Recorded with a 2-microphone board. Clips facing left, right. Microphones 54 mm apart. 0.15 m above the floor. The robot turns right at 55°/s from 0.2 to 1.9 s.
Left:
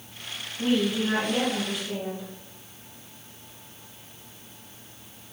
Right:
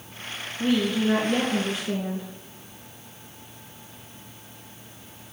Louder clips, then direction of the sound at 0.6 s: Right 1 dB; 145° left.